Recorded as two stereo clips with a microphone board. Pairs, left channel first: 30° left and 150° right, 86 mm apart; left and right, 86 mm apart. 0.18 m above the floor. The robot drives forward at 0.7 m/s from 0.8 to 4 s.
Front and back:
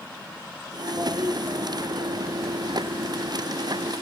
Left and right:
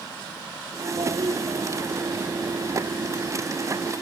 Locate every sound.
1.0 s a toilet flushing: 90° right; by 3.4 s 110° right